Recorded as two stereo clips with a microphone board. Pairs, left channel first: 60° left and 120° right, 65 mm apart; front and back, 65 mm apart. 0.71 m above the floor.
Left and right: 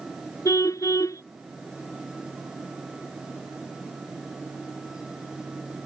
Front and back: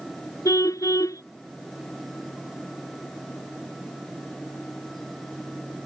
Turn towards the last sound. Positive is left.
turn(degrees=30)